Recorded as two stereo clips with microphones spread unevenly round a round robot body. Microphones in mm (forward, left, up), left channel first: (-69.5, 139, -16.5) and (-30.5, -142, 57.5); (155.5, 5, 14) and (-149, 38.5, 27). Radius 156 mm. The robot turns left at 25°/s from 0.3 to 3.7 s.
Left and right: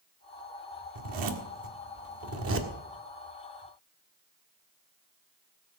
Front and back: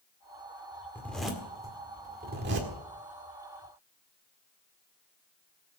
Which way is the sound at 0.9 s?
90° right.